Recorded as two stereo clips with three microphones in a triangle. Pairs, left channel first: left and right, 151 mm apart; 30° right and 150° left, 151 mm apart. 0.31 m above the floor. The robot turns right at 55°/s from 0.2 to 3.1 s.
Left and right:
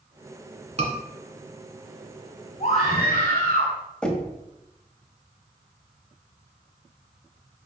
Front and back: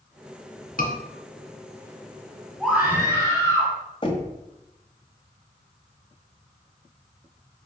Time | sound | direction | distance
0.8 | a scream | 45° right | 3 m
2.6 | a scream | 55° left | 2.0 m
4.0 | knocking | 5° left | 1.6 m